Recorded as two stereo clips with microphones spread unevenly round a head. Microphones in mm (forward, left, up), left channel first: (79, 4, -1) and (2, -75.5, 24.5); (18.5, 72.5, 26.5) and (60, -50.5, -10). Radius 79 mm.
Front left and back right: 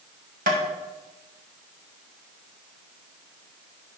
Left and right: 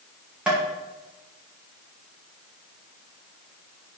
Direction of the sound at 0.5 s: 155° right.